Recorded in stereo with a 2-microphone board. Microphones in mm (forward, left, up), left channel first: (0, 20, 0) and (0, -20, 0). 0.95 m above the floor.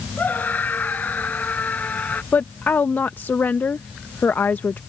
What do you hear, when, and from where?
0.2 s a scream: 45° left (ahead or behind); by 2.2 s 40° left (ahead or behind)
2.3 s a woman speaking: 50° left (ahead or behind)